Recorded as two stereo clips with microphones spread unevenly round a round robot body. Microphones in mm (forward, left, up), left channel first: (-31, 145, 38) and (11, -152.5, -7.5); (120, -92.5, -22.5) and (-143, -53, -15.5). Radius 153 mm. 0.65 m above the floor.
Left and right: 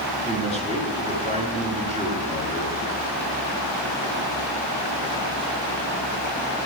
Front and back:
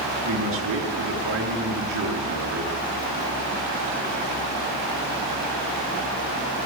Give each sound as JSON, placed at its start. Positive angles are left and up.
{"t": 0.2, "sound": "a man speaking", "azimuth_deg": -150, "distance_m": 8.5}